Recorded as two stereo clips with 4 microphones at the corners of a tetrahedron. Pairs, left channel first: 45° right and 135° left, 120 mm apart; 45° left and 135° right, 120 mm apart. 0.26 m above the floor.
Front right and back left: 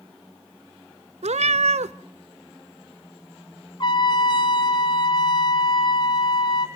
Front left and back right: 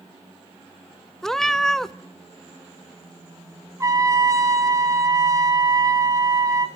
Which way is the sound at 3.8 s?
80° right.